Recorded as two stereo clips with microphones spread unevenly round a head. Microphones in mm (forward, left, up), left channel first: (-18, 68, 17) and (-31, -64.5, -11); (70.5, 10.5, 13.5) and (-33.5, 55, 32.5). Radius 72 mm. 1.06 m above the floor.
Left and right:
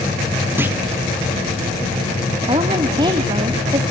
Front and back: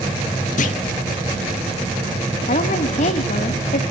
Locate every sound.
0.6 s a clunk: 20° right, 0.8 m
2.5 s a woman speaking: 35° right, 1.5 m